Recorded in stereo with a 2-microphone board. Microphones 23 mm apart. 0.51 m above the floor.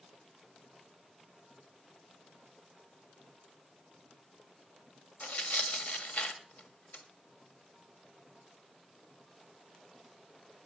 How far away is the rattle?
I don't hear a rattle.